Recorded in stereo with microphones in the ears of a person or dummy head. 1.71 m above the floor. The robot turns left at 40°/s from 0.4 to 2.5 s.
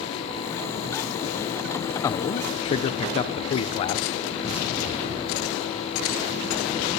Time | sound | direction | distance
2.0 | a man speaking | 20° left (ahead or behind) | 0.8 m